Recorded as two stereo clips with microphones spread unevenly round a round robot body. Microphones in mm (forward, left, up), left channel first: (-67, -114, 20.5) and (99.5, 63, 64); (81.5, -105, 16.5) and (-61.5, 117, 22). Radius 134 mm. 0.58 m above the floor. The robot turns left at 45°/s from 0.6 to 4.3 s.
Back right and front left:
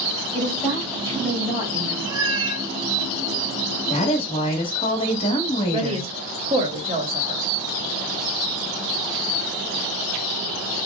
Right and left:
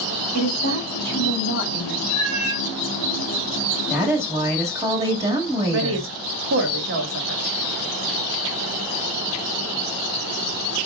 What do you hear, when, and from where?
0.3 s a woman speaking: 170° left, 3.5 m; by 2.0 s 110° left, 3.5 m
2.1 s a cat meowing: 125° left, 3 m; by 2.6 s 100° left, 3 m
3.9 s a woman speaking: 150° right, 1.3 m; by 6.1 s 165° right, 1.3 m
5.7 s a woman speaking: 115° left, 1.1 m